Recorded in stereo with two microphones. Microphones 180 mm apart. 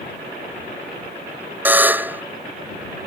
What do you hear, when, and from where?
1.6 s a buzzer: 10° right (ahead or behind)